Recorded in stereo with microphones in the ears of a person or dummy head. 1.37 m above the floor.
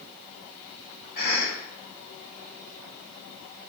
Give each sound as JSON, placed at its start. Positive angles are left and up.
{"t": 1.1, "sound": "a cough", "side_deg": 75, "distance_m": 1.6}